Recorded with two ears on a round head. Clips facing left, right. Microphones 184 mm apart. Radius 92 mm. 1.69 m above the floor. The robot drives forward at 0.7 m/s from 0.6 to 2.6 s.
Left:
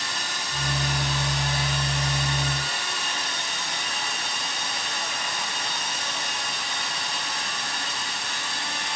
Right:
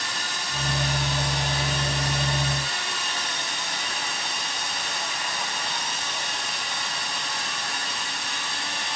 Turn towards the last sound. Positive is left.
No sound to turn to.